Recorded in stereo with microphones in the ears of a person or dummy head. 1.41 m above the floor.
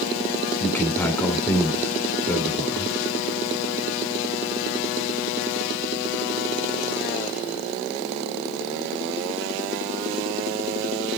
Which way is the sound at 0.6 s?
5° left (ahead or behind).